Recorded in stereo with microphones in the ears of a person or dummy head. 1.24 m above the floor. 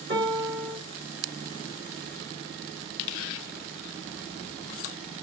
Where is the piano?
60° right (ahead or behind), 2.5 m.